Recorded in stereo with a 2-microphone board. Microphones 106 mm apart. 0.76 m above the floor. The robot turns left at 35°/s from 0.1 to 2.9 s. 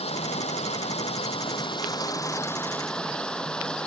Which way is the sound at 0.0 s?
105° left.